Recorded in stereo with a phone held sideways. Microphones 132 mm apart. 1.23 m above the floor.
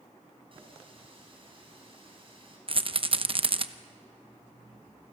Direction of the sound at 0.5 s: 40° right (ahead or behind).